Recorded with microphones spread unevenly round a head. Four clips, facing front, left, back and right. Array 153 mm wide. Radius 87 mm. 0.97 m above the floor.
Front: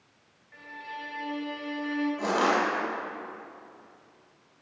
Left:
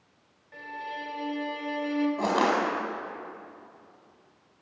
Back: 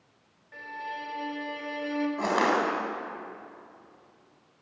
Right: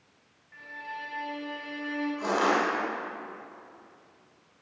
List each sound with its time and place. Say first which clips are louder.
0.5 s a violin: left 3 dB, back 4 dB; 115° left, 3 m
2.2 s crushing: right 1 dB, even; 105° left, 5 m